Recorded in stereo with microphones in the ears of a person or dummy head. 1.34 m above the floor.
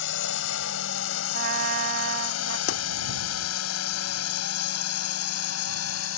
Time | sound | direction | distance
0.0 | a drone | 60° left (ahead or behind) | ?
1.3 | a trumpet | 60° right (ahead or behind) | ?
2.7 | a pop | 50° left (ahead or behind) | ?